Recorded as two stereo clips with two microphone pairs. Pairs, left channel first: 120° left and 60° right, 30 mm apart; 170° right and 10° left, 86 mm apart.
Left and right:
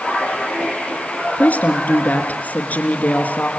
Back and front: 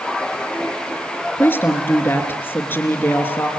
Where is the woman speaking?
125° left, 3.5 m.